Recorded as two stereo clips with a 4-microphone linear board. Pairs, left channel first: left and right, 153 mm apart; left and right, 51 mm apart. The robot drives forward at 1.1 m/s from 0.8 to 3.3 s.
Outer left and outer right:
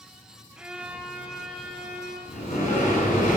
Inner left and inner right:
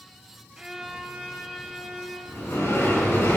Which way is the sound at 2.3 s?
50° left (ahead or behind).